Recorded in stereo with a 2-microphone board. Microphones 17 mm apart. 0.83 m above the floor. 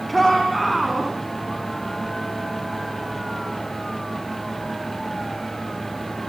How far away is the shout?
About 6 m.